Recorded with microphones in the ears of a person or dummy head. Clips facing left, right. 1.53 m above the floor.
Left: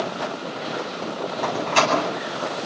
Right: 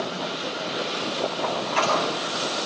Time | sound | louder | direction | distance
1.4 | a door slam | left 6 dB | 60° left (ahead or behind) | 8.5 m